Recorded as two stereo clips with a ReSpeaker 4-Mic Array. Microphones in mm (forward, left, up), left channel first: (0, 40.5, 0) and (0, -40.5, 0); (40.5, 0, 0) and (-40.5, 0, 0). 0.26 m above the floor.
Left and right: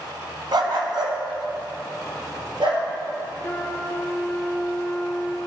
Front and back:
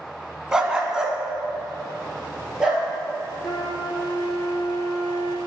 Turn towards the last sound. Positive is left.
turn(degrees=30)